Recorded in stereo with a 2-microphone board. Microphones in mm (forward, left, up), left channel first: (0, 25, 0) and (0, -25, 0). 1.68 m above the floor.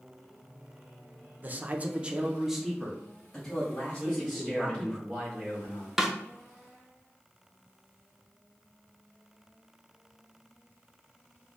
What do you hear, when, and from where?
1.4 s a man speaking: 35° right (ahead or behind), 0.7 m; by 5.0 s 15° left (ahead or behind), 2 m
4.0 s a man speaking: 5° right (ahead or behind), 2.5 m
6.0 s a snare drum: 10° right (ahead or behind), 0.6 m